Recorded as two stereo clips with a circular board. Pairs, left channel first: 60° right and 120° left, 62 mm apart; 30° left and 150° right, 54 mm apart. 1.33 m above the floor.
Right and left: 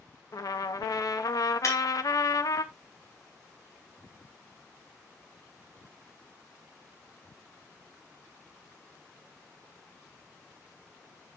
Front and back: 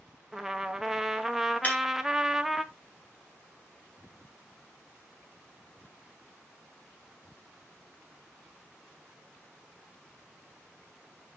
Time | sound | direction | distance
0.3 | a trumpet | 65° right | 0.8 m
1.6 | breaking glass | 30° right | 4 m